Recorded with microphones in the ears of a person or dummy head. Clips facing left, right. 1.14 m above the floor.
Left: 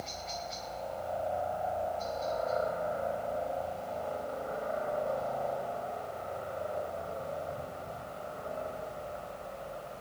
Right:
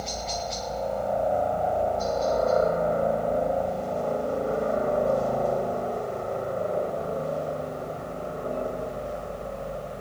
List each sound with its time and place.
0.0 s a helicopter: 65° right (ahead or behind); by 10.0 s 60° right (ahead or behind)